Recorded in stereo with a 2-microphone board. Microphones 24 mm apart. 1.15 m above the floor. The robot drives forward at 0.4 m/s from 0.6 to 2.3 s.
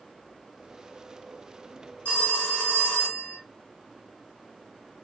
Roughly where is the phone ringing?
Left.